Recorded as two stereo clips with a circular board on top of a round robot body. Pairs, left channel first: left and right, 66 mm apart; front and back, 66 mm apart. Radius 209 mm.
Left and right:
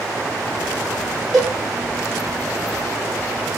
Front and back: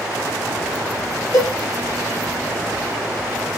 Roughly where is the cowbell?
Ahead.